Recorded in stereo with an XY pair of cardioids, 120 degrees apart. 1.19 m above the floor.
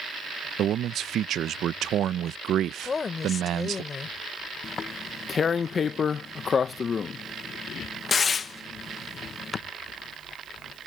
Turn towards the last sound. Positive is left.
turn(degrees=35)